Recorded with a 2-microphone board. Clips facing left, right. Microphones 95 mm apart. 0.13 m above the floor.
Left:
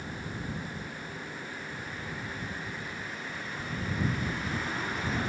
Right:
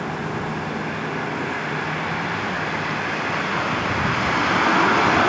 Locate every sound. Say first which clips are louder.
0.0 s a vehicle: right 13 dB; 75° right (ahead or behind)